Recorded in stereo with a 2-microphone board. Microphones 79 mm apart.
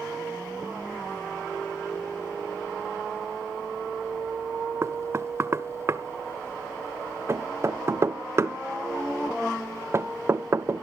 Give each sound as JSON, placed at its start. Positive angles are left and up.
{"t": 4.8, "sound": "knocking", "side_deg": -35, "distance_m": 0.6}